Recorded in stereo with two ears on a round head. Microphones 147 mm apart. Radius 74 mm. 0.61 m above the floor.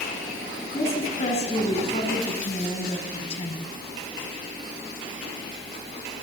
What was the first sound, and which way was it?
A woman speaking, 40° left (ahead or behind).